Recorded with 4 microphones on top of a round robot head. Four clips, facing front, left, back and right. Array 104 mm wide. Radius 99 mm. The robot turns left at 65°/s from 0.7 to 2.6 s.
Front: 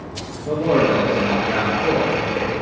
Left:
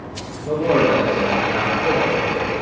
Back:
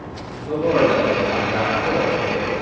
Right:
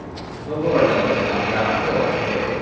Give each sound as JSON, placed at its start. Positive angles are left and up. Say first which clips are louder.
{"t": 0.5, "sound": "a man speaking", "louder": "left 1 dB, even", "azimuth_deg": 35, "distance_m": 2.5}